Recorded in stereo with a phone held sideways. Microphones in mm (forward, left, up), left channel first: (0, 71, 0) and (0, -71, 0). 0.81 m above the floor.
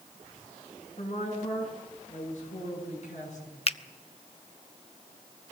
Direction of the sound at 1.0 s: 50° left (ahead or behind).